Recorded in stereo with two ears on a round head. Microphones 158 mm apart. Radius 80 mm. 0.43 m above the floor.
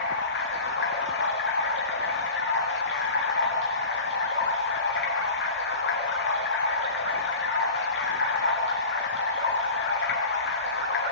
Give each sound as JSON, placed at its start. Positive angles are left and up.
{"t": 0.0, "sound": "running water", "side_deg": 65, "distance_m": 8.5}